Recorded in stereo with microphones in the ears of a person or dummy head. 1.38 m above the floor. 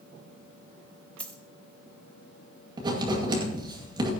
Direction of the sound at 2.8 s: 25° right (ahead or behind).